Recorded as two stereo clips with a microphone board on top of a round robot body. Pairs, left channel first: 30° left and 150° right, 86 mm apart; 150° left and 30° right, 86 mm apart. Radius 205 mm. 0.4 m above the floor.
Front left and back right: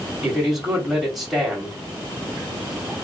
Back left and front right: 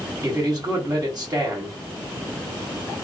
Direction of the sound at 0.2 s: 65° right.